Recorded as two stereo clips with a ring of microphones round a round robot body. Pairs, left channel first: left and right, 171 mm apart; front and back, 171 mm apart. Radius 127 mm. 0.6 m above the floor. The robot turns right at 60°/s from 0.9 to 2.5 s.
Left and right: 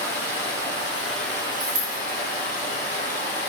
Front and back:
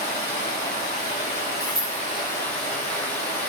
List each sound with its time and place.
0.0 s running water: 15° right, 2 m; by 3.5 s 85° left, 2 m
1.6 s a dropped coin: 70° right, 0.9 m; by 2.0 s 45° right, 0.9 m